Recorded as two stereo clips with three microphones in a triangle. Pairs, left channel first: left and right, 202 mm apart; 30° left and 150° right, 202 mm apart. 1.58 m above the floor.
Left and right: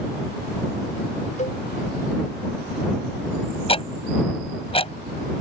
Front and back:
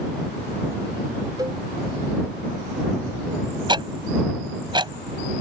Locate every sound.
1.4 s a cowbell: 140° left
3.7 s ticking: 145° left